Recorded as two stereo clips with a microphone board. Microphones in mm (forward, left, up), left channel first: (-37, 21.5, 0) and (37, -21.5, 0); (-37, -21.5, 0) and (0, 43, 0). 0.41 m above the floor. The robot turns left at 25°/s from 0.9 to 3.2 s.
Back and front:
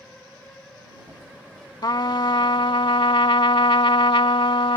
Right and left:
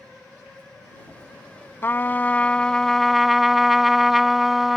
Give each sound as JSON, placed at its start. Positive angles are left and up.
{"t": 1.8, "sound": "a trumpet", "azimuth_deg": 180}